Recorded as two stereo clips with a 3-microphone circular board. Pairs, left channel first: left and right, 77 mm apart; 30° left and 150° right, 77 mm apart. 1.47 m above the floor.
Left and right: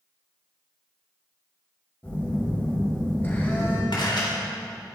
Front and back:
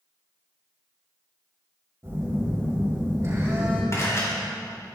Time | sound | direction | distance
2.0 | a phone buzzing | 155° left | 4.5 m
3.9 | a camera shutter | 80° left | 3.5 m